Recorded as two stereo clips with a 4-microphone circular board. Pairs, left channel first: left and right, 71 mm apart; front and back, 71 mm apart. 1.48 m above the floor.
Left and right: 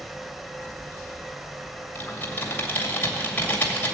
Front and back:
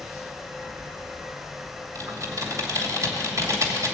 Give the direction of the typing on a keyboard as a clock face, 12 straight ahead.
7 o'clock.